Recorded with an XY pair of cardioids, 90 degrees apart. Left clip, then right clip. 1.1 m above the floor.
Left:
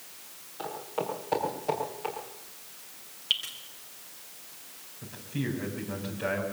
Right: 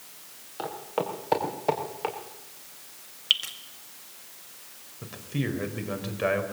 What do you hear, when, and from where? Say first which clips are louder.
0.6 s footsteps: right 3 dB; 65° right, 6 m
3.3 s dripping: right 4 dB; 45° right, 1.9 m
5.0 s a man speaking: right 3 dB; 65° right, 4 m